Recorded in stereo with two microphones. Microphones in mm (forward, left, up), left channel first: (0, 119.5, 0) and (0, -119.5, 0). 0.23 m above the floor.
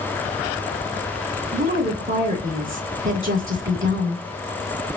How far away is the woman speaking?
About 2.5 m.